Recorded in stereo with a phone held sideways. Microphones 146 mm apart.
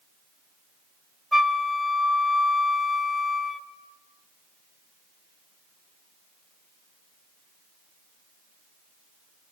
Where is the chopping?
No chopping in this recording.